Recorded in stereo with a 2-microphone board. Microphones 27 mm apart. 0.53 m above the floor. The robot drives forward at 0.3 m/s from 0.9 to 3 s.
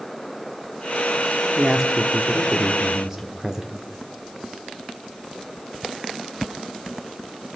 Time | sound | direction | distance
1.6 | a man speaking | 20° right (ahead or behind) | 0.9 m